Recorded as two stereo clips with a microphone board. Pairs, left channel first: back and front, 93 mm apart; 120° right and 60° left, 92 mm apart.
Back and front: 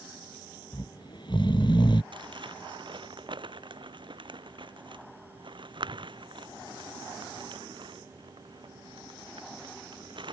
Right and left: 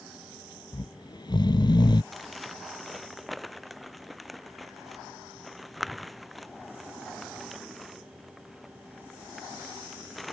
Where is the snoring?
155° right.